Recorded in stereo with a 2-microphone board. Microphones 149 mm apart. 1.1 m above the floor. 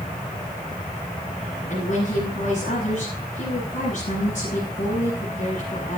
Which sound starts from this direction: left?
A woman speaking, at 1.7 s.